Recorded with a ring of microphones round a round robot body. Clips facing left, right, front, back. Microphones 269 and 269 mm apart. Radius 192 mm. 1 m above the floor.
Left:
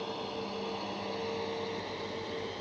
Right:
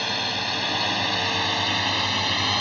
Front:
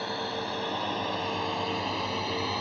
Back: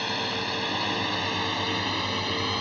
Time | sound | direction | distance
0.0 | a drone | 115° right | ?